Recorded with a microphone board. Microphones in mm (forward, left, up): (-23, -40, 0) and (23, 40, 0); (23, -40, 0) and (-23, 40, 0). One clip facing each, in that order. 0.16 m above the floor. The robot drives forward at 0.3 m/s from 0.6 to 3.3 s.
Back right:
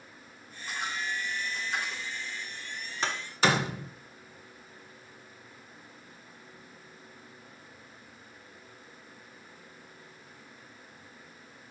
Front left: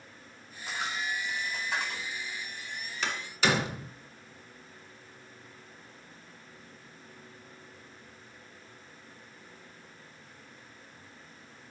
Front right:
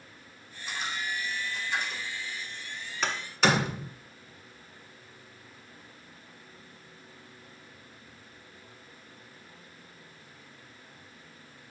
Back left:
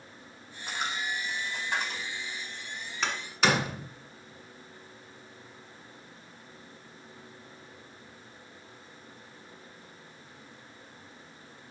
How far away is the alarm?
I don't hear an alarm.